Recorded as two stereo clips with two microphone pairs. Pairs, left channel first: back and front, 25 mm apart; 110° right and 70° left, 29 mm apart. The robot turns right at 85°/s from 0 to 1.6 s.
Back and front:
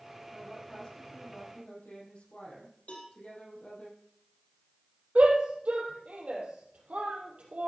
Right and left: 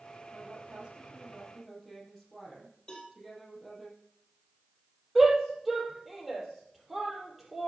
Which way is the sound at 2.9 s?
175° right.